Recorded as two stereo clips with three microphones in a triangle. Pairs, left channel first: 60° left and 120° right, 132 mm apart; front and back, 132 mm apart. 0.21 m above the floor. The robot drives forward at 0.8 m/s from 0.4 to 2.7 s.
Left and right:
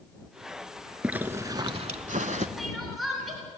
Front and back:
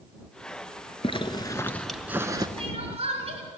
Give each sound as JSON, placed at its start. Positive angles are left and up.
{"t": 1.0, "sound": "a zipper", "azimuth_deg": -40, "distance_m": 0.9}
{"t": 2.6, "sound": "crying", "azimuth_deg": 150, "distance_m": 2.0}